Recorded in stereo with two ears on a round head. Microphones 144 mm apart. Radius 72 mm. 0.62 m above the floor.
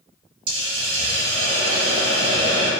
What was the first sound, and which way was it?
A hiss, 35° right (ahead or behind).